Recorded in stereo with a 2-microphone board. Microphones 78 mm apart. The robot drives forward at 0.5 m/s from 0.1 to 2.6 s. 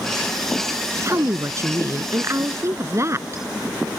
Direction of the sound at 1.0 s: 40° right (ahead or behind).